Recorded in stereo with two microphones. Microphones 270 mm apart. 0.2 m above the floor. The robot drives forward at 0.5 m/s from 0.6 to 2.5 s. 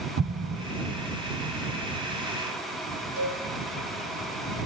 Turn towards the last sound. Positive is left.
turn(degrees=-30)  # may be behind; listen again after turning